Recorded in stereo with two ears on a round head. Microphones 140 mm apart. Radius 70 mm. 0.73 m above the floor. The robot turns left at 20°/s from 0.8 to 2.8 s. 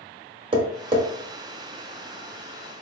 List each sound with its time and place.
0.5 s tapping: 35° right (ahead or behind), 0.7 m; by 1.0 s 30° right (ahead or behind), 0.7 m